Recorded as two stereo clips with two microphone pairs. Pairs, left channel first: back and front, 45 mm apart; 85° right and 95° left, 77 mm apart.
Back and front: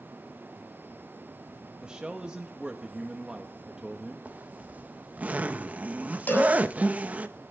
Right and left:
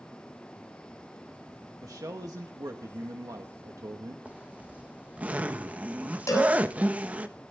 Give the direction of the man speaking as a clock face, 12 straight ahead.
10 o'clock.